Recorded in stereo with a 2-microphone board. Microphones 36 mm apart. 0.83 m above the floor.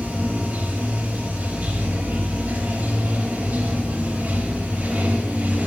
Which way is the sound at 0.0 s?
40° right (ahead or behind).